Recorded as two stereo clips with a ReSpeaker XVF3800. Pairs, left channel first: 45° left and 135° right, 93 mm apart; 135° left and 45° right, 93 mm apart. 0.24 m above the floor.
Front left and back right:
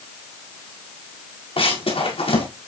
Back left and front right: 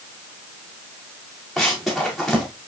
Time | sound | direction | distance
1.6 | running footsteps | 45° left | 5 m